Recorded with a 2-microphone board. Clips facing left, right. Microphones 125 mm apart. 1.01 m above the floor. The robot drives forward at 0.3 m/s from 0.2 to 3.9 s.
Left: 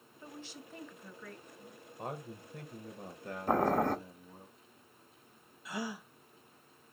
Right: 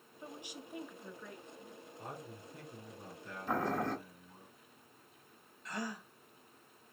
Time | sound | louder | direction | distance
0.2 | a woman speaking | even | 15° right (ahead or behind) | 0.7 m
2.0 | a man speaking | left 6 dB | 60° left (ahead or behind) | 0.8 m
3.5 | boiling | left 6 dB | 45° left (ahead or behind) | 0.5 m
5.7 | a gasp | left 2 dB | 5° left (ahead or behind) | 0.5 m